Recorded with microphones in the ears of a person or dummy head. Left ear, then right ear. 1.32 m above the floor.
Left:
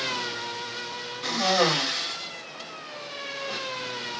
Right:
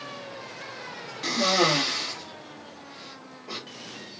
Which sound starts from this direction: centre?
A cough, at 1.2 s.